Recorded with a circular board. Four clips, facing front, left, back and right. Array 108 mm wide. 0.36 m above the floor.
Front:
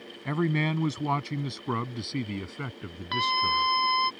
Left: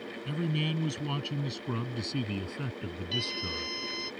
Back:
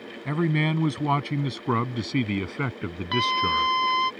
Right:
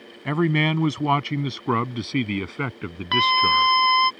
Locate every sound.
0.2 s a man speaking: 95° right; by 3.7 s 130° right
3.1 s a scream: 100° right